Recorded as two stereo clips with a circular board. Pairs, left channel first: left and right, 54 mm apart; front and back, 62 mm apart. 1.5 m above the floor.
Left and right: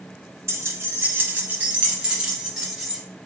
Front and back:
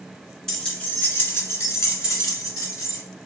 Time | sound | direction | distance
0.5 | keys jangling | 80° right | 0.9 m